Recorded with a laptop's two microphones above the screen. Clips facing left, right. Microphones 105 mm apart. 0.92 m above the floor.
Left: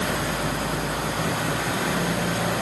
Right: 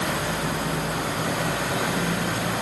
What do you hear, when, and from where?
Only background noise.